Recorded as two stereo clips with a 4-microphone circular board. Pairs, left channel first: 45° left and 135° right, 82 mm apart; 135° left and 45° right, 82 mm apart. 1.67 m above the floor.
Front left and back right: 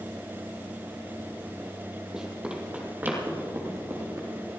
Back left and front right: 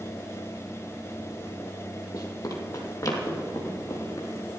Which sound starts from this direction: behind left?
Running footsteps, at 2.1 s.